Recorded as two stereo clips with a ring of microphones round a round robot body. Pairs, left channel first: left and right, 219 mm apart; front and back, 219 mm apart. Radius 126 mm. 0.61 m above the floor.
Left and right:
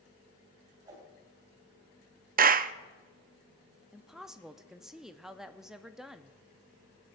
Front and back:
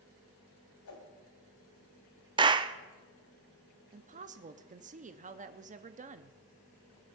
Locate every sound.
0.8 s a whoosh: 15° right, 2.5 m
2.4 s a clap: 120° right, 0.5 m
3.9 s a woman speaking: 175° right, 0.6 m